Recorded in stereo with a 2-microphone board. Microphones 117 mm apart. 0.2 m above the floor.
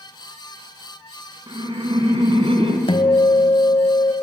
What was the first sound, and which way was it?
Laughter, 40° right (ahead or behind).